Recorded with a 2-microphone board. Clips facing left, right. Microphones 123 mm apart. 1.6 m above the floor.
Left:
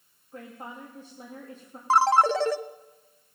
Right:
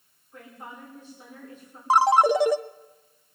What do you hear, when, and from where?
0.3 s a woman speaking: 35° left (ahead or behind), 3 m
1.9 s a ringtone: 15° right (ahead or behind), 0.6 m